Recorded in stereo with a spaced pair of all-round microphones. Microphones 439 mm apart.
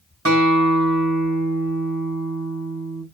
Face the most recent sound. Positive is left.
turn(degrees=-30)  # may be behind; listen again after turning